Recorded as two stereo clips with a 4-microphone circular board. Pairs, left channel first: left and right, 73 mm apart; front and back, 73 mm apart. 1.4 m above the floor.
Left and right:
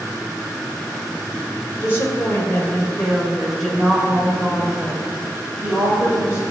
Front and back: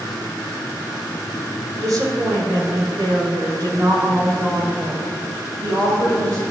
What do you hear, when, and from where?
1.8 s a woman speaking: 145° left, 4.5 m; by 6.4 s 150° right, 6.5 m